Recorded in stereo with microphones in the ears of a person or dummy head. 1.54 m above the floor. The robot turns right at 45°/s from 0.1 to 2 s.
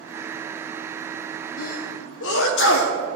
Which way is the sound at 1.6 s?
55° left (ahead or behind).